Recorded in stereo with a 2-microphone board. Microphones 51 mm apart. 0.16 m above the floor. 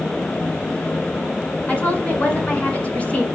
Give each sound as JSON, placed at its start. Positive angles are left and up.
{"t": 1.7, "sound": "a woman speaking", "side_deg": 25, "distance_m": 1.9}